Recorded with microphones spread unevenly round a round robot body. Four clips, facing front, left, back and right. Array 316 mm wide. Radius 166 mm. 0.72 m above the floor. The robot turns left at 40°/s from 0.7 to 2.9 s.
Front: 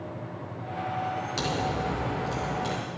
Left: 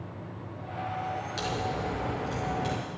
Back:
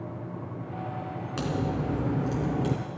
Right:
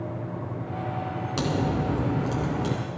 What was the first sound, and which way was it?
A crack, 95° right.